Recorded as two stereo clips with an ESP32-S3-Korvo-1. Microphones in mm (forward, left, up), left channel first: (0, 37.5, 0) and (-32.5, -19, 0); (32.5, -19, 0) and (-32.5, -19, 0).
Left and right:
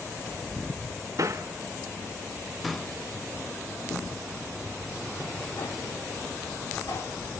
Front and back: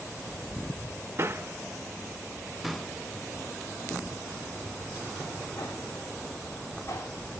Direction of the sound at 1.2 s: 140° right.